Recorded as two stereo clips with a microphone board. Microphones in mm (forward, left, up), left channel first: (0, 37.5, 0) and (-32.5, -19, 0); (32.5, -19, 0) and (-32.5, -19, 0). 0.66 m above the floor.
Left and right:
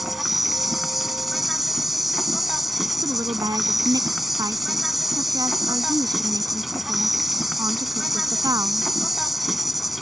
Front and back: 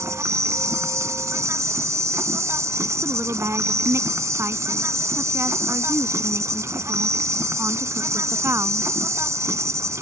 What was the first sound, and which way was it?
An insect, 155° left.